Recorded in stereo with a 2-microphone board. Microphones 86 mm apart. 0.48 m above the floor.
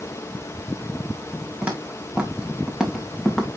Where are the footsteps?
15° right (ahead or behind), 3.5 m; by 3.6 s 5° right (ahead or behind), 1.8 m.